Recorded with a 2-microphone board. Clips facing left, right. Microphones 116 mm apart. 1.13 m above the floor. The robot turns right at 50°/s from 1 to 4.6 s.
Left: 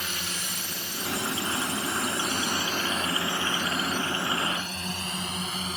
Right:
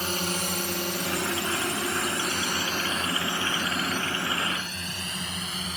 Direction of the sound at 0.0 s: 40° right (ahead or behind).